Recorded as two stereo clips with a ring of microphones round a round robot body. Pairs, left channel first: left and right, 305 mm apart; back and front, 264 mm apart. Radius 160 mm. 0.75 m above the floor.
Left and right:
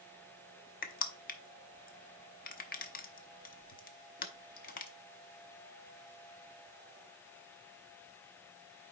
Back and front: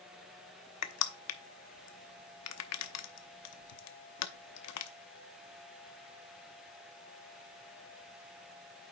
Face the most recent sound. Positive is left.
turn(degrees=155)